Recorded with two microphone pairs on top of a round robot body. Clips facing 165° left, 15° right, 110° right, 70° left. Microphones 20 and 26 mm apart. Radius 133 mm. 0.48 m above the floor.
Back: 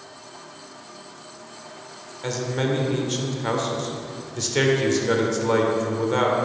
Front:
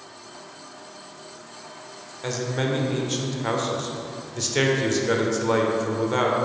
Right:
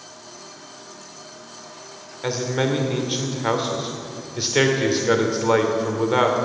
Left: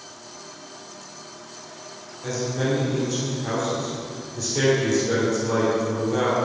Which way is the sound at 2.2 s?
115° right.